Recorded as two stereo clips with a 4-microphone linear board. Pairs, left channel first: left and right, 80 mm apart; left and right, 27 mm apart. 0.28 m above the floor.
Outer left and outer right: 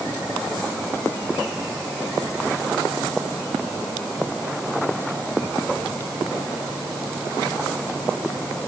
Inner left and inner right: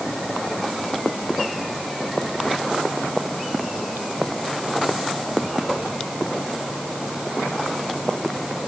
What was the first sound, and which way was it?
Only background noise.